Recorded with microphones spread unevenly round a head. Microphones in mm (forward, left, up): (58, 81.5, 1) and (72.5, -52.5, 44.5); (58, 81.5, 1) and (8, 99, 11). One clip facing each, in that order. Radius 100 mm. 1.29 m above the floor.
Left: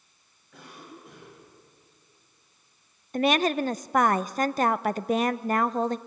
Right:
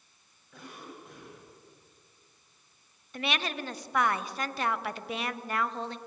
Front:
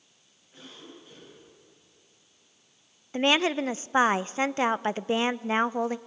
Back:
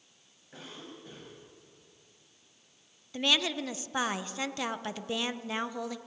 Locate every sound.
0.5 s a cough: 175° right, 8.5 m
3.1 s a woman speaking: 40° left, 0.5 m